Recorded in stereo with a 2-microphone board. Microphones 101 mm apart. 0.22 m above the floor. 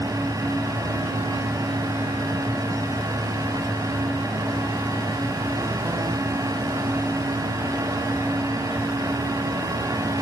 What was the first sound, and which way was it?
Only background noise.